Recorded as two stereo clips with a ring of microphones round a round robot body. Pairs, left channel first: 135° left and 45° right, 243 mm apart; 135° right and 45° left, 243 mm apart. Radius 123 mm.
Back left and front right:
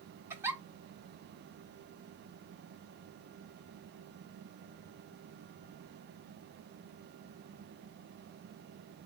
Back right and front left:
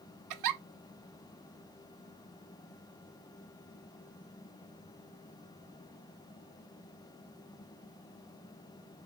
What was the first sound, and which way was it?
A giggle, 35° left.